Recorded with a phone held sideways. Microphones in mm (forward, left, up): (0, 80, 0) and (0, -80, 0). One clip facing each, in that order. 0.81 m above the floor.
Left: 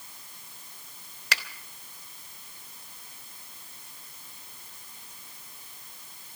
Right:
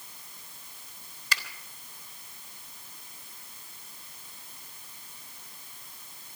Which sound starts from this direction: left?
A finger snap, at 1.3 s.